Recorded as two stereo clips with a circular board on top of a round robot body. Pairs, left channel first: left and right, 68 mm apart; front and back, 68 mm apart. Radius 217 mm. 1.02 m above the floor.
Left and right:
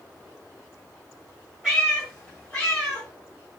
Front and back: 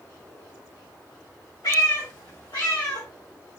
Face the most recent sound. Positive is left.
turn(degrees=35)